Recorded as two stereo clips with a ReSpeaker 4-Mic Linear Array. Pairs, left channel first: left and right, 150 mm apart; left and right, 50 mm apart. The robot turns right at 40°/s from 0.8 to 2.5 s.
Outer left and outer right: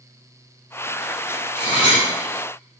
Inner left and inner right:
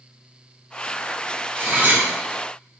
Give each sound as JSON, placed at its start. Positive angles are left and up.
{"t": 1.6, "sound": "cutlery clinking", "side_deg": -40, "distance_m": 1.3}